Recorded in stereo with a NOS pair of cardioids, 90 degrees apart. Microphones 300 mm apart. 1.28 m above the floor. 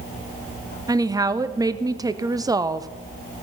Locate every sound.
0.9 s a woman speaking: 15° right, 0.6 m